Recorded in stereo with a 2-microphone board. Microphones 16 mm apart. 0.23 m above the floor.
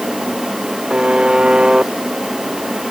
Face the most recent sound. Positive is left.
turn(degrees=-85)